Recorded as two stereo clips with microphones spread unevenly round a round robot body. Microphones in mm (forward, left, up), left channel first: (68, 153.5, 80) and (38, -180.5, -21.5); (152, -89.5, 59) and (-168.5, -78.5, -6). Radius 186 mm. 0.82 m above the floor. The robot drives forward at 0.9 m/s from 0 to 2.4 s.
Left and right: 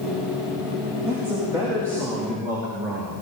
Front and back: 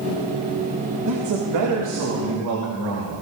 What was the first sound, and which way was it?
A man speaking, 170° right.